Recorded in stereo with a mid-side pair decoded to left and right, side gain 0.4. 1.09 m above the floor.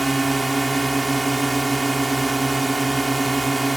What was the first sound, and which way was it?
A drone, 20° right.